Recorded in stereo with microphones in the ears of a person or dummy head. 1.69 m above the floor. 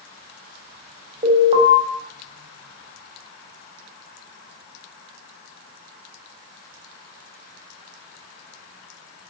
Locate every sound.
1.2 s an alarm: 35° right (ahead or behind), 4 m